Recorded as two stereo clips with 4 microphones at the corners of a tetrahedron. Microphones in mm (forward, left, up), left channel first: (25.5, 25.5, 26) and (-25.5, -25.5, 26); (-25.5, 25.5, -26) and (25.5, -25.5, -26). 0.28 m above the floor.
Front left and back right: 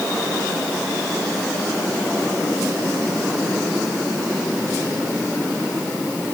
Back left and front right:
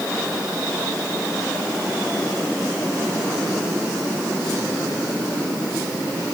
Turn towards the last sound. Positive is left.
No sound to turn to.